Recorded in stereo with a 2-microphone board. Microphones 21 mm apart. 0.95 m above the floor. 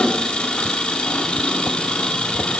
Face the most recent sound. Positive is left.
turn(degrees=60)  # may be behind; listen again after turning